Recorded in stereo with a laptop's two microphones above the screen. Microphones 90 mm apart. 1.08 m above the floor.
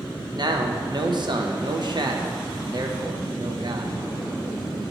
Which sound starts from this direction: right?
A man speaking, at 0.3 s.